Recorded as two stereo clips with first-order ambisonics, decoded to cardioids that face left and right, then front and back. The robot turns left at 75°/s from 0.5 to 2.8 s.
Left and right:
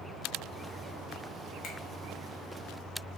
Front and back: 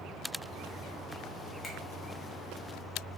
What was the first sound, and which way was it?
A finger snap, 75° left.